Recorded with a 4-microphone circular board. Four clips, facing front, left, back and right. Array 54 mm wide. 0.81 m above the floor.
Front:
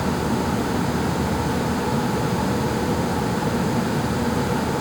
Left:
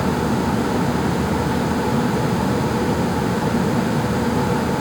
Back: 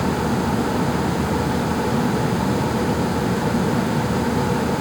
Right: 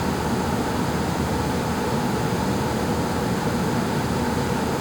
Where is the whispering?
No whispering in this recording.